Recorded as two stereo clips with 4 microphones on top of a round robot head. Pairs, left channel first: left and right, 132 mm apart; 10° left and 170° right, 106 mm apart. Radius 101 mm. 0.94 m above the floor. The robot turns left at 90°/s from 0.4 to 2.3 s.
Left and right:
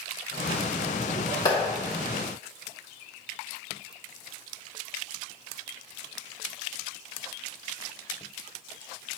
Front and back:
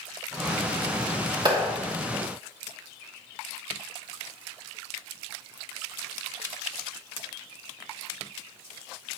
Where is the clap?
155° left, 2.5 m; by 1.7 s 135° left, 2.5 m.